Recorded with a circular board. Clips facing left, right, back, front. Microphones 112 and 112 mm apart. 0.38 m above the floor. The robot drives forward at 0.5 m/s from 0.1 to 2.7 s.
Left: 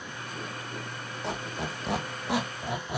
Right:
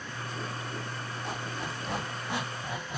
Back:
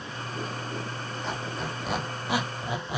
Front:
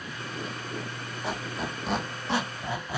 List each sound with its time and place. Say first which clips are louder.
1.2 s a squeak: left 4 dB, front 2 dB; 80° left, 1.4 m; by 3.0 s 110° left, 1.5 m